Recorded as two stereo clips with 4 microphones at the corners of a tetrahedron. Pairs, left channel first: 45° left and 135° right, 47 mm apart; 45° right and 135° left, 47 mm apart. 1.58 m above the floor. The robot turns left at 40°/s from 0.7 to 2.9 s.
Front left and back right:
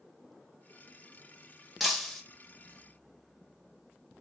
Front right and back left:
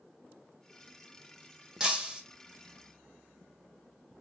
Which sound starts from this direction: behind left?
Breaking glass, at 1.8 s.